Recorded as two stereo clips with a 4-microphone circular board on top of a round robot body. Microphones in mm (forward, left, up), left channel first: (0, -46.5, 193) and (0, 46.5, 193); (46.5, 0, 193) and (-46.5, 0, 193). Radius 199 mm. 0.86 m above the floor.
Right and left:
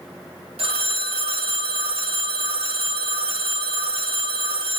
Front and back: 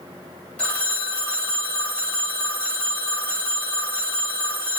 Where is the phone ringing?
80° left, 1.0 m.